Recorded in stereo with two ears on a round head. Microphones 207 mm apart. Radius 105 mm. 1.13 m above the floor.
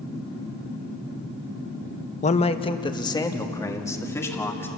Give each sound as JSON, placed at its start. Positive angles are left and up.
{"t": 2.2, "sound": "a man speaking", "side_deg": 30, "distance_m": 0.9}